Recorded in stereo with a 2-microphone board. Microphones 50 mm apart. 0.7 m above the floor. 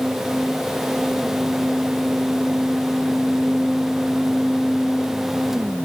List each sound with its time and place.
Only background noise.